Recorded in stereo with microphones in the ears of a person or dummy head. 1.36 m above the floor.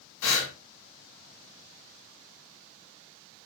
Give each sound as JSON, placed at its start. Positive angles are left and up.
{"t": 0.2, "sound": "breathing", "side_deg": 75, "distance_m": 1.8}